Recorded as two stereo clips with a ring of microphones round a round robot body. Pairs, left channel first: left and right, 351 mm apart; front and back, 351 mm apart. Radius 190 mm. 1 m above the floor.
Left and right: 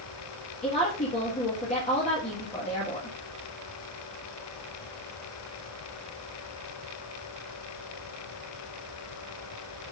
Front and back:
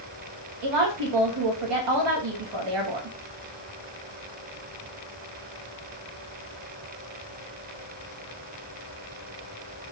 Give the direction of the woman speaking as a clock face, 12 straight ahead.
7 o'clock.